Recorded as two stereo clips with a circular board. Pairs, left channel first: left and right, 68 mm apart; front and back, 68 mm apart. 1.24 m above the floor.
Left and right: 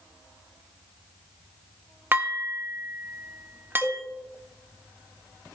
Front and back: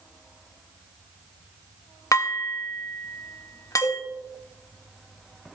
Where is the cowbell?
10° left, 3 m.